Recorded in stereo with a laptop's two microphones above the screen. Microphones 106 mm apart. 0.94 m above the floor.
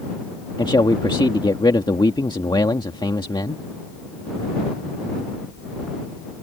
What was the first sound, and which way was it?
A man speaking, 45° left (ahead or behind).